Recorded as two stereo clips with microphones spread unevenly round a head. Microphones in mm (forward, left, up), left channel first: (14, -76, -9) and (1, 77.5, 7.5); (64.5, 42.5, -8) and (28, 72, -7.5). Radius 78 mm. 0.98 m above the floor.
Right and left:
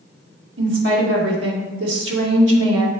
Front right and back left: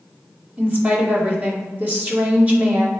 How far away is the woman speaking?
About 2.5 m.